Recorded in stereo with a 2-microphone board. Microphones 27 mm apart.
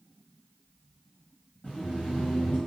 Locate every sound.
1.6 s laughter: 80° left, 1.5 m